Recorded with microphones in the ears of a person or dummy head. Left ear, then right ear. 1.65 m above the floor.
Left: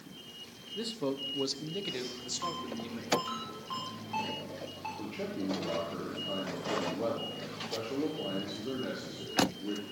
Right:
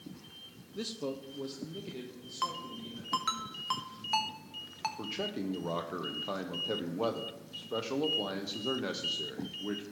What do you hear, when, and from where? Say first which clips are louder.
0.8 s a man speaking: left 3 dB; 10° right (ahead or behind), 0.5 m; by 3.4 s 80° left, 2 m
2.4 s a ringtone: right 5 dB; 60° right (ahead or behind), 1.3 m
5.0 s a man speaking: right 1 dB; 60° right (ahead or behind), 0.8 m